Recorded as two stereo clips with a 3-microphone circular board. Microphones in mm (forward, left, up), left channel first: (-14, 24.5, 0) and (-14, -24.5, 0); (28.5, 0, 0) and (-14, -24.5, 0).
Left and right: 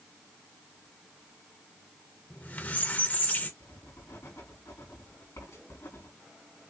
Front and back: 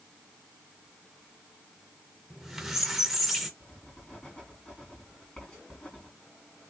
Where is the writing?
100° left, 4 m.